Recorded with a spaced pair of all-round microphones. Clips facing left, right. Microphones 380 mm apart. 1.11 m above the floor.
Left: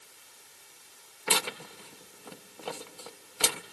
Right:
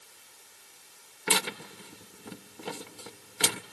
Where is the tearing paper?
30° right (ahead or behind), 0.5 m.